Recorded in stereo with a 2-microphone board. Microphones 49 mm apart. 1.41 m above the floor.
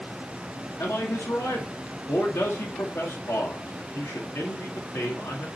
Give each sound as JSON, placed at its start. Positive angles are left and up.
{"t": 0.8, "sound": "a man speaking", "side_deg": 75, "distance_m": 2.5}